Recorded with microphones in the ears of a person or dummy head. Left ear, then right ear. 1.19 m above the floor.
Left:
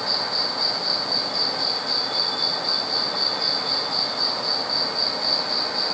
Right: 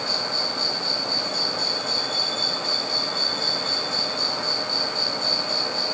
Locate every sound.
0.0 s an insect: 15° right (ahead or behind)